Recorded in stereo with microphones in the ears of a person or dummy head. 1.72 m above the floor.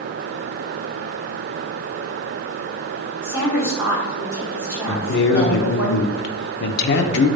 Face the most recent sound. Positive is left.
turn(degrees=75)  # may be behind; listen again after turning